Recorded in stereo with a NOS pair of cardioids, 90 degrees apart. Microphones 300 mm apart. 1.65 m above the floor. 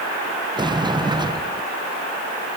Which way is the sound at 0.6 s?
15° right.